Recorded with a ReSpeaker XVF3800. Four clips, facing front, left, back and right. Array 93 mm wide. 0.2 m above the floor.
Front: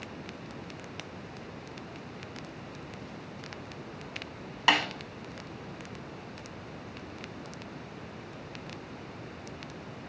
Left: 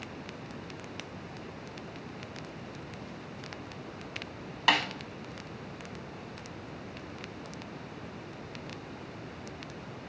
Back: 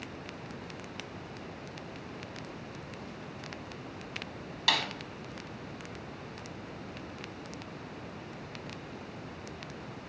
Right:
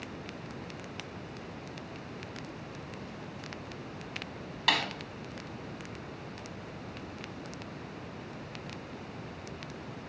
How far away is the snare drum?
About 0.6 m.